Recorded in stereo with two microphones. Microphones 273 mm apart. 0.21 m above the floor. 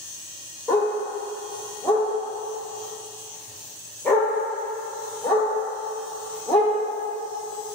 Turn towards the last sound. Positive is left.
turn(degrees=5)  # may be behind; listen again after turning